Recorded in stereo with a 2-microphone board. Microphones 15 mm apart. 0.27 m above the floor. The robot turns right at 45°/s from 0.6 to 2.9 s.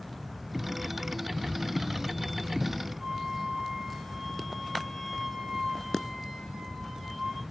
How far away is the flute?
About 6 m.